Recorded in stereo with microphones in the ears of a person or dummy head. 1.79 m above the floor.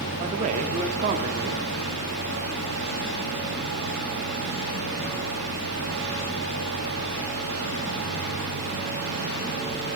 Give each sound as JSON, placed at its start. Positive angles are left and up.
{"t": 0.2, "sound": "a man speaking", "side_deg": -40, "distance_m": 0.6}